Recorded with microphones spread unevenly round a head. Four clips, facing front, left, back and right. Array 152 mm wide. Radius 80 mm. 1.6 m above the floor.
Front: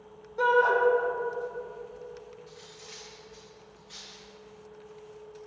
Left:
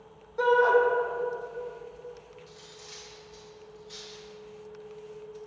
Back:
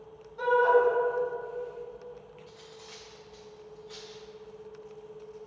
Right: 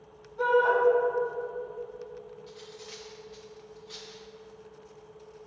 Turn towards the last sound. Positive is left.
turn(degrees=-160)